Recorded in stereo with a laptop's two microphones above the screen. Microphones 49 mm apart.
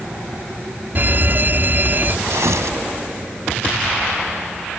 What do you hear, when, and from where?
0.9 s a fire alarm: 45° right (ahead or behind)
2.3 s tearing paper: 80° right